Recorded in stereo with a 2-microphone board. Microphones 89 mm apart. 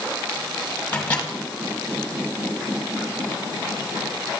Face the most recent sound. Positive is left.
turn(degrees=20)  # may be behind; listen again after turning